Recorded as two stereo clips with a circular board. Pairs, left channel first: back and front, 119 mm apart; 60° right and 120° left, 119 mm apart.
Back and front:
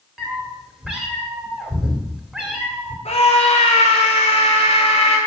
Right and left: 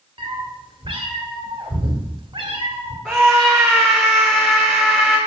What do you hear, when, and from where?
0.2 s a cat meowing: 80° left, 2 m
3.0 s a scream: 150° right, 6 m